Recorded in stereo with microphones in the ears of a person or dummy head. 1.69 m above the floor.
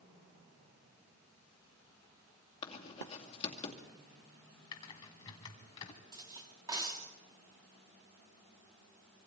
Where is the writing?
30° left (ahead or behind), 2.5 m.